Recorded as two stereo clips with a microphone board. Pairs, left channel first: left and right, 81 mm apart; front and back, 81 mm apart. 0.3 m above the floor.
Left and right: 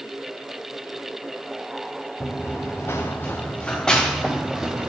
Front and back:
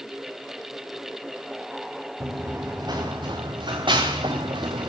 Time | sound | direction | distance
2.2 | running footsteps | 135° left | 2 m